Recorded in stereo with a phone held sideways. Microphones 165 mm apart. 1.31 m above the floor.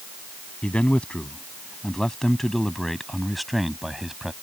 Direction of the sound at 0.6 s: 5° left (ahead or behind).